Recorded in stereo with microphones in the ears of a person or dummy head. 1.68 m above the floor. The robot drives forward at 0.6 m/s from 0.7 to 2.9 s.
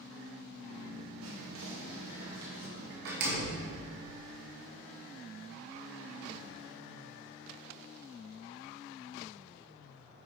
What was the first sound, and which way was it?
Whispering, 80° right.